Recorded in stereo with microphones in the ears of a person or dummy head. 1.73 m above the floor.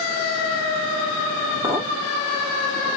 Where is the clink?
20° right (ahead or behind), 1.3 m.